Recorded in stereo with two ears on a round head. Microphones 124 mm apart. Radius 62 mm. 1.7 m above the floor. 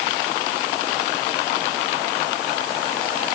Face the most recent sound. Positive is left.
No sound to turn to.